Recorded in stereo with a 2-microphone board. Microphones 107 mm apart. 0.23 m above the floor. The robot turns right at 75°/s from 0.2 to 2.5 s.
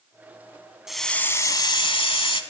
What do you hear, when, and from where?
0.9 s a hiss: 5° right, 0.8 m; by 2.4 s 110° left, 0.8 m